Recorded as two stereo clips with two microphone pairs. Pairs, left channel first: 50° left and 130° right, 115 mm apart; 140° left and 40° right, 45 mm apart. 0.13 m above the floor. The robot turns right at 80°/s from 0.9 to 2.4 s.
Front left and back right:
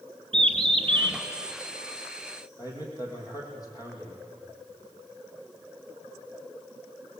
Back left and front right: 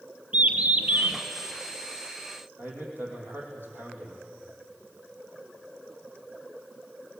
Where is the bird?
95° right, 2 m; by 1.2 s 70° right, 2 m.